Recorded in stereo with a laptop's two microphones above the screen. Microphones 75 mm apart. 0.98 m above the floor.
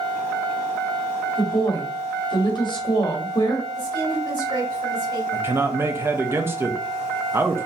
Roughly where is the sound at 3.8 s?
Right.